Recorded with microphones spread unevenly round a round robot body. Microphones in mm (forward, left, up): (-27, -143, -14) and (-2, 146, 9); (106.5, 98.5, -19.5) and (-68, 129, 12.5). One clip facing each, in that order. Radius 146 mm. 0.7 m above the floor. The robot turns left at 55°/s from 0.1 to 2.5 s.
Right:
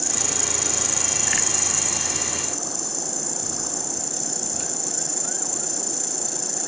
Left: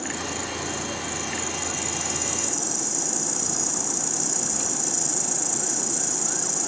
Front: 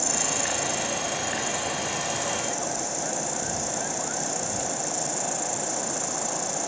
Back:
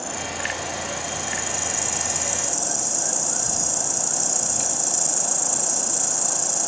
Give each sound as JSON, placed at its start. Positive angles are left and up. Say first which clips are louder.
{"t": 0.0, "sound": "an insect", "louder": "left 1 dB, front 1 dB", "azimuth_deg": -55}